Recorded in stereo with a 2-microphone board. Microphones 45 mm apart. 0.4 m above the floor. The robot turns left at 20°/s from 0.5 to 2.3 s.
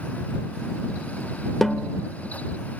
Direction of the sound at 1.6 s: 5° left (ahead or behind).